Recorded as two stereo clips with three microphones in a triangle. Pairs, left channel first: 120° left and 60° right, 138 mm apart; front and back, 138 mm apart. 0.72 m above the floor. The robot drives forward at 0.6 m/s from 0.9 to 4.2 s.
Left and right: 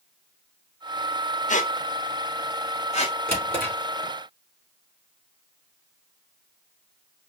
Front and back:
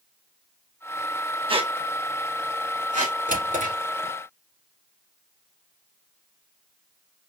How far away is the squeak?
About 0.9 m.